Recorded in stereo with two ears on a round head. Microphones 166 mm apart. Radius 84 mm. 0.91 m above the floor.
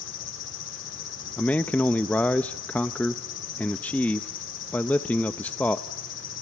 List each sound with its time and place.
0.0 s an insect: 70° left (ahead or behind), 4 m
1.4 s a man speaking: 5° left (ahead or behind), 0.6 m